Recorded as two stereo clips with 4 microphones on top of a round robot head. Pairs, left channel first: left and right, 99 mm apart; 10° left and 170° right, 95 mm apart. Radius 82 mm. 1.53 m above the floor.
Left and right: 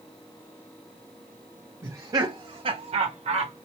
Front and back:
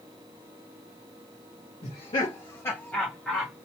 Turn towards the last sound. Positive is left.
turn(degrees=-90)